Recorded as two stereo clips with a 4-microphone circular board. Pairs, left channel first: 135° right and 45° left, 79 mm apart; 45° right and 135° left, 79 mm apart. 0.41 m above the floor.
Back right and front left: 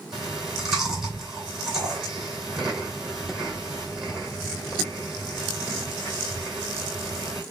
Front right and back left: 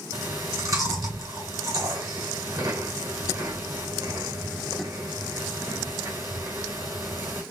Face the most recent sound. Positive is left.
turn(degrees=125)